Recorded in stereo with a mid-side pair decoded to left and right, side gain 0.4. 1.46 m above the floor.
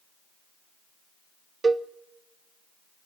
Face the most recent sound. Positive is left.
turn(degrees=-35)